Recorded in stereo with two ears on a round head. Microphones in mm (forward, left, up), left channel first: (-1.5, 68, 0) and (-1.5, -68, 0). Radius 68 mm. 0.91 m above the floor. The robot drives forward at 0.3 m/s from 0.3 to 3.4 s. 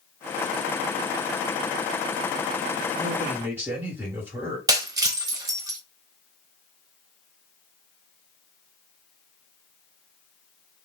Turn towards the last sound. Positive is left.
turn(degrees=-25)  # may be behind; listen again after turning